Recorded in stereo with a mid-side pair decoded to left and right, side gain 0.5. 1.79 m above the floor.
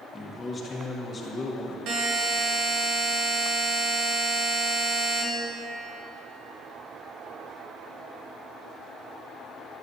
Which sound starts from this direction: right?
A buzzer, at 1.9 s.